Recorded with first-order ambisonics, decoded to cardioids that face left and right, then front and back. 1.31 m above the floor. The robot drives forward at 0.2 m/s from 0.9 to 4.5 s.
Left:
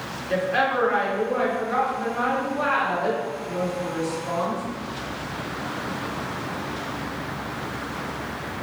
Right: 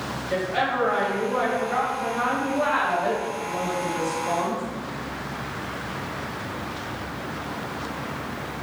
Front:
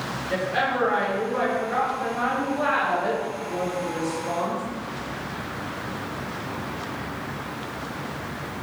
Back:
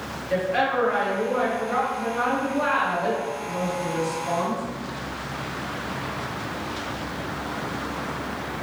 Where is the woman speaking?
95° left, 1.5 m; by 4.6 s 120° left, 1.8 m.